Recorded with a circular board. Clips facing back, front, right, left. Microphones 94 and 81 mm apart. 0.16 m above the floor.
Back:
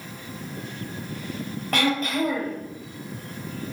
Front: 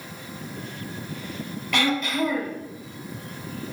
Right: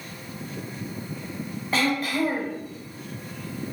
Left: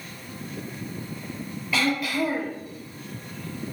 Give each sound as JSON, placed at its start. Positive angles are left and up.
{"t": 1.7, "sound": "throat clearing", "azimuth_deg": -140, "distance_m": 3.0}